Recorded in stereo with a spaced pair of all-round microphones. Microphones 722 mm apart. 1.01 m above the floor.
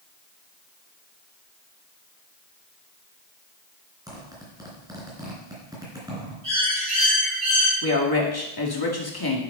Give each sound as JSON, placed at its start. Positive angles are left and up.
{"t": 4.1, "sound": "a zipper", "side_deg": -5, "distance_m": 4.0}
{"t": 6.4, "sound": "a bird", "side_deg": -25, "distance_m": 6.0}
{"t": 7.8, "sound": "a woman speaking", "side_deg": 30, "distance_m": 2.0}